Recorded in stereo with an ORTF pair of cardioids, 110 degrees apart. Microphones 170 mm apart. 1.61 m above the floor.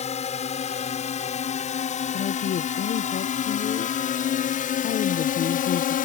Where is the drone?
40° left; by 6.1 s 60° left.